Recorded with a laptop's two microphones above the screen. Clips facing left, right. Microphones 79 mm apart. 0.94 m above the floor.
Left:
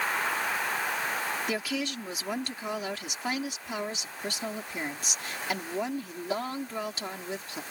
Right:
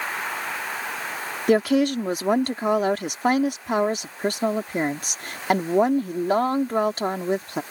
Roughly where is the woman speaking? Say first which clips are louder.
Right 13 dB; right.